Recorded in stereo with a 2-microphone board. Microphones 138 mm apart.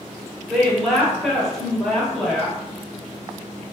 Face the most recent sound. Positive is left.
turn(degrees=0)  # may be behind; listen again after turning